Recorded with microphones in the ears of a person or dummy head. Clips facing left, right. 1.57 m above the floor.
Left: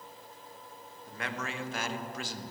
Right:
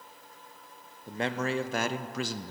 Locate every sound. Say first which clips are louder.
1.1 s a man speaking: right 8 dB; 25° right (ahead or behind), 0.8 m; by 2.5 s 70° right (ahead or behind), 0.5 m